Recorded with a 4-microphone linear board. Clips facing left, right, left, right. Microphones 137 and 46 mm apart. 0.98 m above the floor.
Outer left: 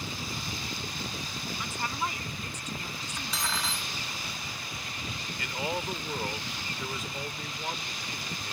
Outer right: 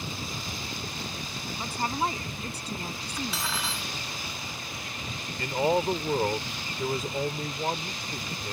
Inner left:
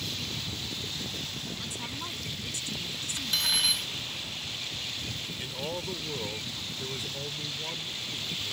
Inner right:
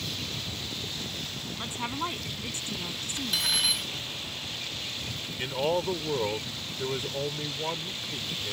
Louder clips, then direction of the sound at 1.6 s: Outer right 6 dB, inner right 5 dB; 35° right (ahead or behind).